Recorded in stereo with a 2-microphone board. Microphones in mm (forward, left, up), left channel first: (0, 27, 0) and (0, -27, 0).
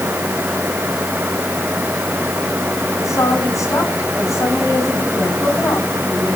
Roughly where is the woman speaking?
Left.